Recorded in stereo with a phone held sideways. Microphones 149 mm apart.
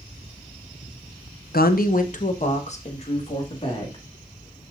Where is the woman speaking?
85° left, 0.7 m; by 4.0 s 35° left (ahead or behind), 3 m.